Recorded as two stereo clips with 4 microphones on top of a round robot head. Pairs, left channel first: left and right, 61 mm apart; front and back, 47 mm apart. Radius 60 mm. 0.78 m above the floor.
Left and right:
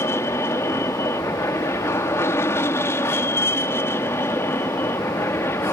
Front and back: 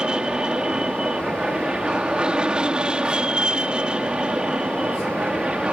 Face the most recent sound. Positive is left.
turn(degrees=120)